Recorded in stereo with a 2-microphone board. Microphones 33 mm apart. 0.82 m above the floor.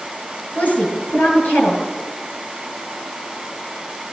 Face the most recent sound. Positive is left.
turn(degrees=65)  # may be behind; listen again after turning